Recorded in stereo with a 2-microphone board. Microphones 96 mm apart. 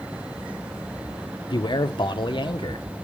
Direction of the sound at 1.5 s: 50° left (ahead or behind).